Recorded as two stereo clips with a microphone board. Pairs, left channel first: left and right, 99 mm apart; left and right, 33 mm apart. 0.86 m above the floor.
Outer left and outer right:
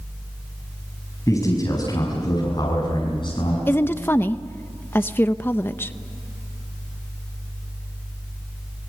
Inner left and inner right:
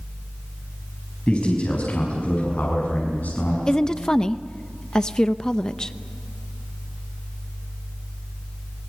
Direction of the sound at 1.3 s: 35° left (ahead or behind).